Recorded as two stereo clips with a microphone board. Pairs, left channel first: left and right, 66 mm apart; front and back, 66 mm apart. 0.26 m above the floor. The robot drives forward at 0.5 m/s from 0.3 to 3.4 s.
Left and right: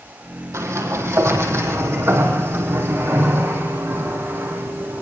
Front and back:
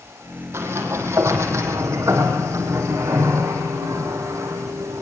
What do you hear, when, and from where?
0.5 s a sliding door: 130° right, 5 m; by 5.0 s 140° right, 6 m